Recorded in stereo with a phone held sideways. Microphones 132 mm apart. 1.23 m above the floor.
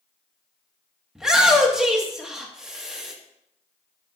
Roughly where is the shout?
Centre.